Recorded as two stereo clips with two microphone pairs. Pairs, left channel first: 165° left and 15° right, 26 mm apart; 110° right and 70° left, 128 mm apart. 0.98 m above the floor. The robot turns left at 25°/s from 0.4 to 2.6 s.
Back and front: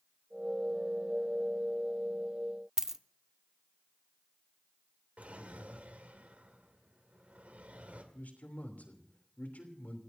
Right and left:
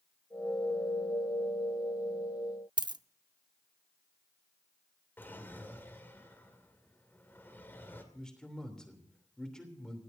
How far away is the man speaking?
About 3 m.